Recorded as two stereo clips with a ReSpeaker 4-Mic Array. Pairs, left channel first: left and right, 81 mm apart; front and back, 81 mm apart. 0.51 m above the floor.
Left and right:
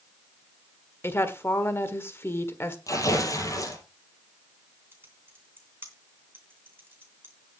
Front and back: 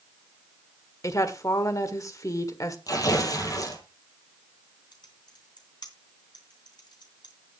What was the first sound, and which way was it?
A woman speaking, 35° left.